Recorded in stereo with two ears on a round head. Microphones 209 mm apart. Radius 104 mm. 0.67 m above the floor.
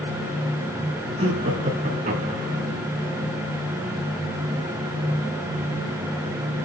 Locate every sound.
1.2 s laughter: 30° right (ahead or behind), 7 m; by 2.6 s 35° right (ahead or behind), 7 m